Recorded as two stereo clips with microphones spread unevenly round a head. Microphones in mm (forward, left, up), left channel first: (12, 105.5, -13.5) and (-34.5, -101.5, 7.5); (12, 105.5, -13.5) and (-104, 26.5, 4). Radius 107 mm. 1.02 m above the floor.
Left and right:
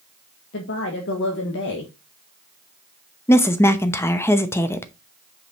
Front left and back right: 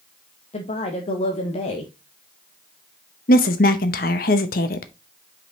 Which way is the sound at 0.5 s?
60° left.